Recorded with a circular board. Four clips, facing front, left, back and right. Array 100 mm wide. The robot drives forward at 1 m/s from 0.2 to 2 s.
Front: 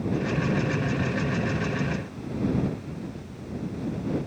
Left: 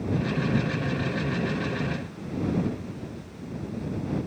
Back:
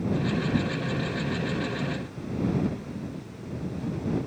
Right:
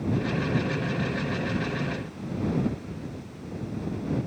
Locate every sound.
Only background noise.